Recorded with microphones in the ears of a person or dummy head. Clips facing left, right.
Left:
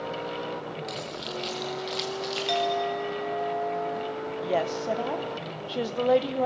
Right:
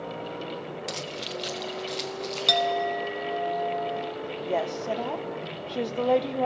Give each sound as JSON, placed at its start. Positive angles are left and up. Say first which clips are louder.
{"t": 0.9, "sound": "keys jangling", "louder": "even", "side_deg": -55, "distance_m": 0.9}
{"t": 2.5, "sound": "a clink", "louder": "right 1 dB", "side_deg": -50, "distance_m": 0.6}
{"t": 4.4, "sound": "a woman speaking", "louder": "left 1 dB", "side_deg": 5, "distance_m": 1.0}